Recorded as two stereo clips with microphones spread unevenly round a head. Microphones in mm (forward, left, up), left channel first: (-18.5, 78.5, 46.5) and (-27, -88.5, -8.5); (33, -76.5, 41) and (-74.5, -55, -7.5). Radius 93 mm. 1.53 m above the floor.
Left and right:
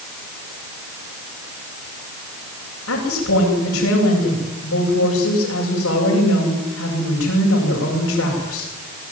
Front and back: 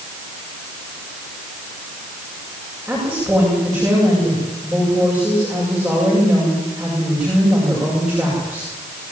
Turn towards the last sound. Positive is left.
turn(degrees=80)